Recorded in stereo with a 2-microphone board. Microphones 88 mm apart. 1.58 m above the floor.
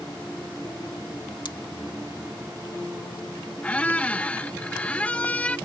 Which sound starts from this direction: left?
Scissors, at 1.4 s.